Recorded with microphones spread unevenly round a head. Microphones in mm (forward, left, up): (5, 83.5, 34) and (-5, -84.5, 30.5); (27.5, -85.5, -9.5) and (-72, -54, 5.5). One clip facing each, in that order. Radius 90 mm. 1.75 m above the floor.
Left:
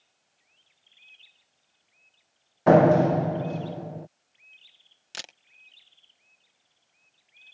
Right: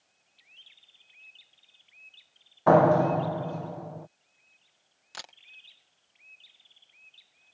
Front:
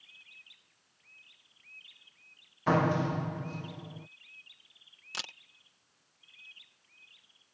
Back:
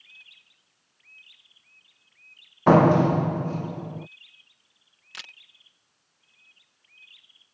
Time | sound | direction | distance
2.7 | a door slam | 150° left | ?
5.1 | a camera shutter | 40° left | ?